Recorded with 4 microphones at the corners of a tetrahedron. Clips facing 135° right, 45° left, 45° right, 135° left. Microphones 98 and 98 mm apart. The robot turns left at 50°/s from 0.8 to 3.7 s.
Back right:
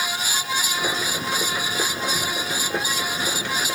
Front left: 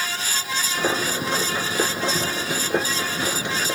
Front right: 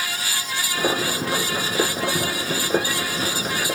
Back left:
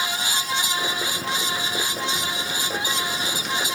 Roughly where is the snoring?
I don't hear snoring.